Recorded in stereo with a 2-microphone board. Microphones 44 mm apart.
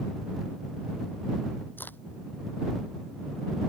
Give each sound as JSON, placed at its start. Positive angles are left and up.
{"t": 1.8, "sound": "a crack", "side_deg": 45}